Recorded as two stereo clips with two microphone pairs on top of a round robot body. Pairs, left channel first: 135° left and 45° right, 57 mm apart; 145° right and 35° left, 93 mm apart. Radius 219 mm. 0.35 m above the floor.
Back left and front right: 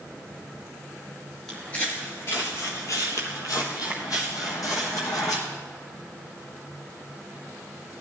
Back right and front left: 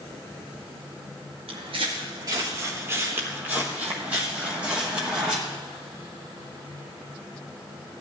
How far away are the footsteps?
About 0.5 m.